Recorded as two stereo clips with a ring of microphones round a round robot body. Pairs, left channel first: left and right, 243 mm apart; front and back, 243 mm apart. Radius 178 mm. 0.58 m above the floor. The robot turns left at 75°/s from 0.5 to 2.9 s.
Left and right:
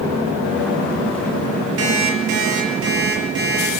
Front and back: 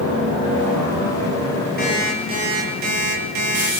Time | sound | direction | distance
1.8 | an alarm clock | 65° right | 6.5 m